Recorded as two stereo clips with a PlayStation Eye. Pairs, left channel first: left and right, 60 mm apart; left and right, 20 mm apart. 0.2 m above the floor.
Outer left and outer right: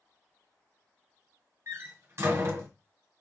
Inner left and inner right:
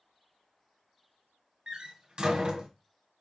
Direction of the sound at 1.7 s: 45° right (ahead or behind).